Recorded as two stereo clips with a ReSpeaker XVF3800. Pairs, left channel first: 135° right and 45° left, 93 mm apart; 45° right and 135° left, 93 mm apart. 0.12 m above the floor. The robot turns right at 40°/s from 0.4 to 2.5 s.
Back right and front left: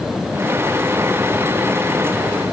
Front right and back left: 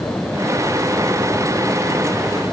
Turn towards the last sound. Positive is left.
No sound to turn to.